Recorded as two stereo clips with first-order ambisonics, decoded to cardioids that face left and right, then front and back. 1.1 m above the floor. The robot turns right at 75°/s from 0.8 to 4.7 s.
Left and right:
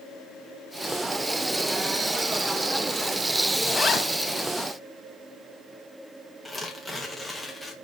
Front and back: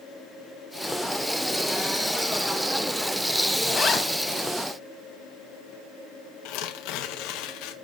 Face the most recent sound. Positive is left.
turn(degrees=0)